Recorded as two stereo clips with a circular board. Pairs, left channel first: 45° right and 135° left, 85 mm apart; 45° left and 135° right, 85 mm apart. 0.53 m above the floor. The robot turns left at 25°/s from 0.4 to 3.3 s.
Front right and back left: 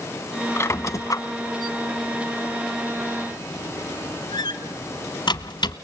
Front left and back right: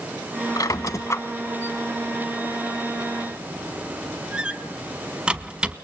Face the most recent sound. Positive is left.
turn(degrees=-60)